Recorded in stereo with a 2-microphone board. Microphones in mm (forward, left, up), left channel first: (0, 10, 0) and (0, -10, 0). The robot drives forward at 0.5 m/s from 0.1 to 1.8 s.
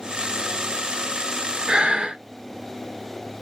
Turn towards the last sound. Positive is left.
turn(degrees=-65)  # may be behind; listen again after turning